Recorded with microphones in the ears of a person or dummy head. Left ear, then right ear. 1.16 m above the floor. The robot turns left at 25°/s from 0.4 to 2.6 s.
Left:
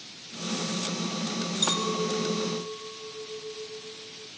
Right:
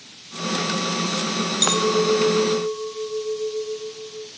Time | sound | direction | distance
1.6 | a clink | 75° right (ahead or behind) | 1.1 m